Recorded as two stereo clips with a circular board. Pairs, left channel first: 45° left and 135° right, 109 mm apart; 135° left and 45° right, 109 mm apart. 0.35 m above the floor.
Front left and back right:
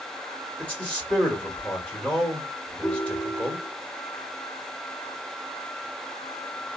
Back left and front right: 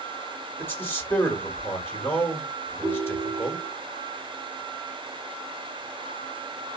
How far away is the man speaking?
About 1.5 m.